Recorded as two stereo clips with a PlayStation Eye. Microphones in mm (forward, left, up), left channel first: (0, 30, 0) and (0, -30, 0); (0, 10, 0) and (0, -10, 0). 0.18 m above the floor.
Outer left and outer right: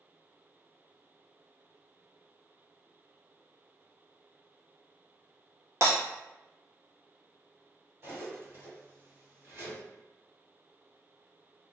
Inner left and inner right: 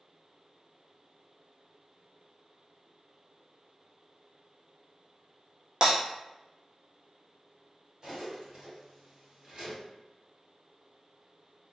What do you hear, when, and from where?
5.8 s breaking glass: 50° right (ahead or behind), 1.2 m
8.0 s cutlery clinking: 40° right (ahead or behind), 1.7 m